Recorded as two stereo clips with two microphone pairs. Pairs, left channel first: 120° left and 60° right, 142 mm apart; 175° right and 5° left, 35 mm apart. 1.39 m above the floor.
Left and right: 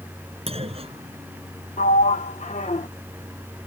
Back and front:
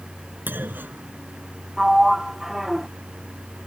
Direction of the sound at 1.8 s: 85° left.